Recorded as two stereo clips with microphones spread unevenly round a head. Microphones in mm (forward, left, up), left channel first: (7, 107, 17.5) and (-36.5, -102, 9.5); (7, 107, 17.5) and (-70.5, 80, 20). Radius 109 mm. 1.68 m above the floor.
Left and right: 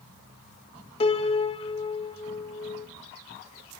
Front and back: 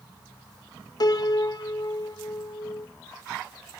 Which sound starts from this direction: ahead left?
A piano, at 1.0 s.